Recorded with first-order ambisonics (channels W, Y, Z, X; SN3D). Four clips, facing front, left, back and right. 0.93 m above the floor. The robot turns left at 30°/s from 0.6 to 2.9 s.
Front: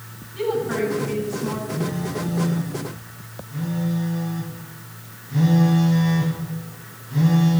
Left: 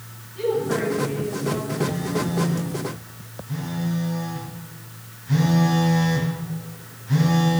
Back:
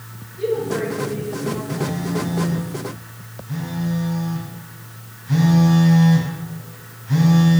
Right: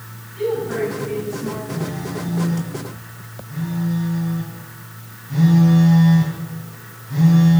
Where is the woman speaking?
Straight ahead, 9.5 m; by 1.6 s 30° right, 9.5 m.